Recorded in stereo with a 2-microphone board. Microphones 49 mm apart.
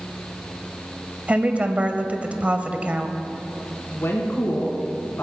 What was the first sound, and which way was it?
A woman speaking, 30° right (ahead or behind).